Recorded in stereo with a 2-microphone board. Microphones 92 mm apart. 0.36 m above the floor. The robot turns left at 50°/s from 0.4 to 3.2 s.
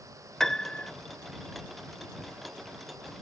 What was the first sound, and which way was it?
A piano, 5° left (ahead or behind).